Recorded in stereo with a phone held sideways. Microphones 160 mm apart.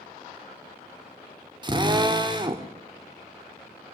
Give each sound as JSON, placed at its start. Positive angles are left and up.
{"t": 1.6, "sound": "a drill", "side_deg": -30, "distance_m": 2.0}